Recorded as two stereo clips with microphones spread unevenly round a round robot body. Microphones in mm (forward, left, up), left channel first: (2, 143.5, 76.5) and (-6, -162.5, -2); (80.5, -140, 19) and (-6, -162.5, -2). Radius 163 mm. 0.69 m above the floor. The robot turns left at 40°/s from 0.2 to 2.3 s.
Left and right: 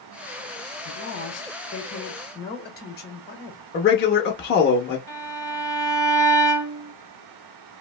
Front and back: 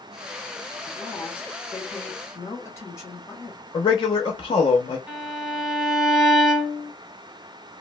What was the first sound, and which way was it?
A woman speaking, 105° left.